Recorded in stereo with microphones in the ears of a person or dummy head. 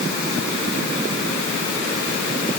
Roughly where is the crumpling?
I don't hear crumpling.